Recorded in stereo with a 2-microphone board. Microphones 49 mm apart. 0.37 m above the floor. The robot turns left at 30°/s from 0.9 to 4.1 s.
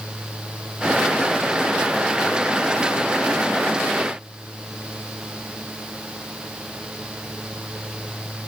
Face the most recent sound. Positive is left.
No sound to turn to.